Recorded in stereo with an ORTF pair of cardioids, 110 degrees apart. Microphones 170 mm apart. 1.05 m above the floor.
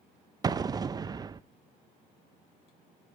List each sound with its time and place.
0.4 s an explosion: 25° right, 0.5 m